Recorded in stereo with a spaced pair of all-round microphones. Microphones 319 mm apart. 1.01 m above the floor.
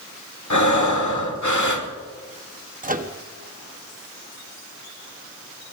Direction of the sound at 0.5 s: 65° left (ahead or behind).